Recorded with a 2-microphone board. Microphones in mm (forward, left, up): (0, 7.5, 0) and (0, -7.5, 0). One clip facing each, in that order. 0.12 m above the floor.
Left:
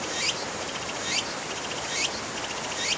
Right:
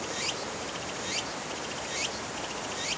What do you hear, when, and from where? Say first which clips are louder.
0.0 s running water: left 4 dB; 25° left (ahead or behind)